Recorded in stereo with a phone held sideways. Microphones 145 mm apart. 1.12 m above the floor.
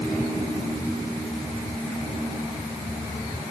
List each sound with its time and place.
Only background noise.